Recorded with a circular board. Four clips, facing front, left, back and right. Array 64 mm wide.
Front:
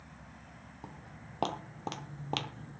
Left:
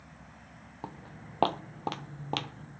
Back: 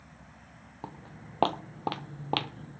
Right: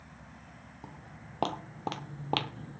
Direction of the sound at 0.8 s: 135° left.